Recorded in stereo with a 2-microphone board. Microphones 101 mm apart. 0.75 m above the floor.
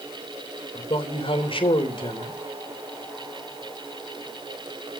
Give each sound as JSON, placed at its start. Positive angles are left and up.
{"t": 0.8, "sound": "a man speaking", "side_deg": 60, "distance_m": 3.5}